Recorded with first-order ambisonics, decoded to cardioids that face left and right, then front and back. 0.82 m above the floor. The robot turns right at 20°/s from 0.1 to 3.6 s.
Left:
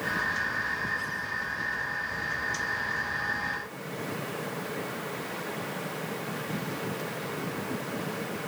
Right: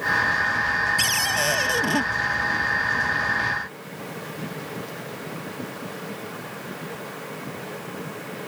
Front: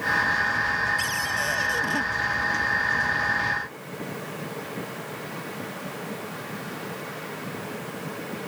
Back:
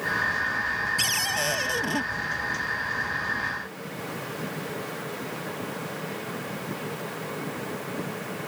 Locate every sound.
1.0 s a cupboard door: 110° right; by 2.0 s 90° right